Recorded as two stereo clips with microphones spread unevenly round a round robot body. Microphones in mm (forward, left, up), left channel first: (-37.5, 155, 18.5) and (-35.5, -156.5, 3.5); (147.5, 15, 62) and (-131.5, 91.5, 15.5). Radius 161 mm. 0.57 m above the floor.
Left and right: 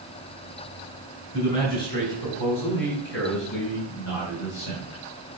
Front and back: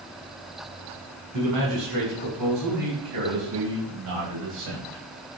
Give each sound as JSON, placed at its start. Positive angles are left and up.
{"t": 1.3, "sound": "a man speaking", "azimuth_deg": 150, "distance_m": 5.0}